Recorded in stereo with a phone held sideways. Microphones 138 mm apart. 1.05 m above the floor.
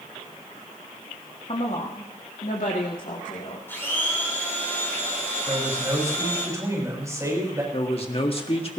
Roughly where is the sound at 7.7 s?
Left.